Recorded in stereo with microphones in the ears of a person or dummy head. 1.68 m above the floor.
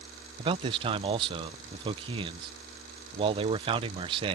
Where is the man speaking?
35° right (ahead or behind).